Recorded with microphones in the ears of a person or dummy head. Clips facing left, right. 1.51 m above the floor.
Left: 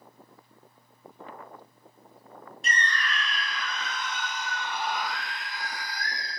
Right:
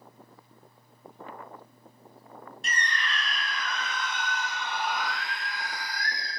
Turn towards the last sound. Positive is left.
turn(degrees=-65)  # may be behind; listen again after turning